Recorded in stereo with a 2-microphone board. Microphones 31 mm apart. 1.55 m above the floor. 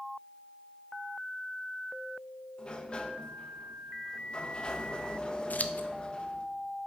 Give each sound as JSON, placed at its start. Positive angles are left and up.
{"t": 2.6, "sound": "a sliding door", "side_deg": 30, "distance_m": 1.0}
{"t": 5.5, "sound": "scissors", "side_deg": 55, "distance_m": 0.6}